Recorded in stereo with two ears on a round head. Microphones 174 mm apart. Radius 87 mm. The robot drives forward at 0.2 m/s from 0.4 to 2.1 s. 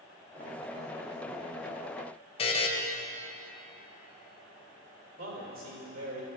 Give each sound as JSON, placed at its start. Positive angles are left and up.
{"t": 2.4, "sound": "a buzzer", "side_deg": 30, "distance_m": 0.9}
{"t": 5.2, "sound": "a man speaking", "side_deg": -75, "distance_m": 3.0}